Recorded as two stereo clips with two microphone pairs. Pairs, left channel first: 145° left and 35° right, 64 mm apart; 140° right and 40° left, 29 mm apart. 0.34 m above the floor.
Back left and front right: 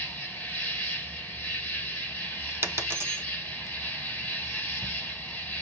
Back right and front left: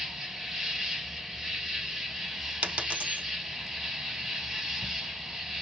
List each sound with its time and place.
0.0 s an insect: 105° left, 0.9 m
2.6 s a dropped coin: 15° left, 0.5 m